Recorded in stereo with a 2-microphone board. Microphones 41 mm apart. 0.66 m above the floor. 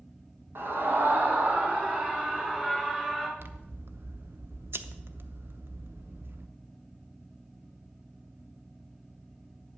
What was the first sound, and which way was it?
A scream, 60° right (ahead or behind).